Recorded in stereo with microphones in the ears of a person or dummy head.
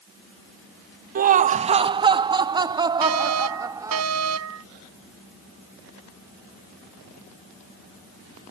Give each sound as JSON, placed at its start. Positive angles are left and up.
{"t": 1.1, "sound": "laughter", "side_deg": -40}
{"t": 3.0, "sound": "a fire alarm", "side_deg": -85}